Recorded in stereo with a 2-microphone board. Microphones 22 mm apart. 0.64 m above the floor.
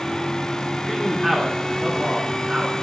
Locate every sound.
0.8 s a man speaking: 10° left (ahead or behind), 1.7 m; by 2.8 s 50° right (ahead or behind), 2.5 m